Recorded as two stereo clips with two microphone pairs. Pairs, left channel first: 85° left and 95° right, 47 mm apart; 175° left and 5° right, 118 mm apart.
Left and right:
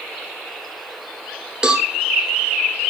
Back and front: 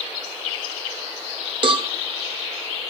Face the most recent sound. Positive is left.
turn(degrees=-25)